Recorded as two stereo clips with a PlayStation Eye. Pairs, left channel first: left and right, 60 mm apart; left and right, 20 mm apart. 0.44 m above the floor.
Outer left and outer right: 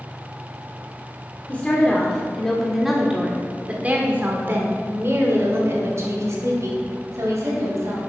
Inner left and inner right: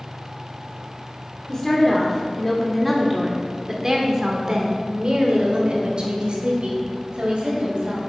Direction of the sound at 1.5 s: 25° left (ahead or behind).